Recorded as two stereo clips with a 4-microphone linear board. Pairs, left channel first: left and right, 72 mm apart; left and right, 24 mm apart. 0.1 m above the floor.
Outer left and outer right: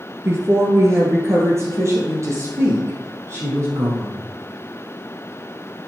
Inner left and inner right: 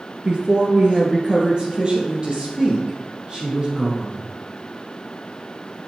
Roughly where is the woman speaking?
Right.